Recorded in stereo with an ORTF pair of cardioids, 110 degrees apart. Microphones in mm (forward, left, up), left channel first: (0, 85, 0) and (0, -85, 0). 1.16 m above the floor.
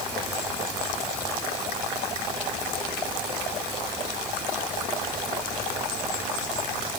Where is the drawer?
I don't hear a drawer.